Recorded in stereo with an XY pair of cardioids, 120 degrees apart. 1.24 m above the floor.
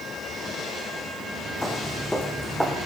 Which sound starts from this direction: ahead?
Footsteps, at 1.6 s.